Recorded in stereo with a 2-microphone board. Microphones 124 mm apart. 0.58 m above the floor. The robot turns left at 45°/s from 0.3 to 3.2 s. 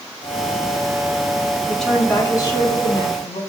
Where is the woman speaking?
Straight behind, 5.5 m; by 3.4 s 115° left, 5.5 m.